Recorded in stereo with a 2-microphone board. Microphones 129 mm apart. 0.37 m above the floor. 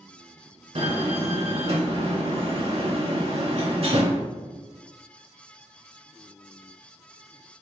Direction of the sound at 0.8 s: 50° right (ahead or behind).